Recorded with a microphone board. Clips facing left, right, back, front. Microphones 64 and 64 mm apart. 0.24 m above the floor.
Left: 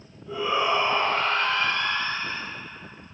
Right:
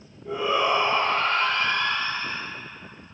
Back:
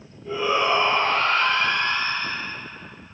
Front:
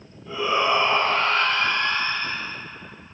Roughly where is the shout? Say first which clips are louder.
Right 1 dB, even; right.